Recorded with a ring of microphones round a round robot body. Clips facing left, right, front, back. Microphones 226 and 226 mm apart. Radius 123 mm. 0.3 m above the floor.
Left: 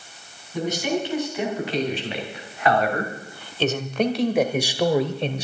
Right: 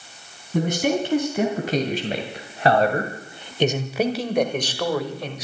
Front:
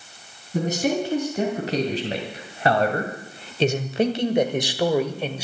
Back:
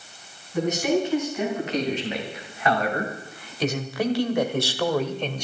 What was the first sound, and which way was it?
A man speaking, 55° right.